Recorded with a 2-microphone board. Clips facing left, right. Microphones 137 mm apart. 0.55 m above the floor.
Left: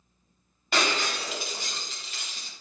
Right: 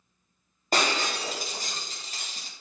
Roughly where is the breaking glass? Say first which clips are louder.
Right 1 dB; right.